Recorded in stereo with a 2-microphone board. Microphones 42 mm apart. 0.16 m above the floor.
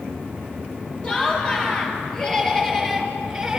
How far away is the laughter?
About 5 m.